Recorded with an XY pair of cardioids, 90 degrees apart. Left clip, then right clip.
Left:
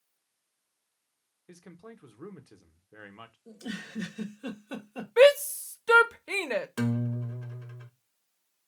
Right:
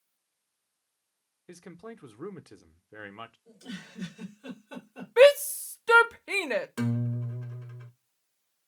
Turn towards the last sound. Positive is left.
turn(degrees=20)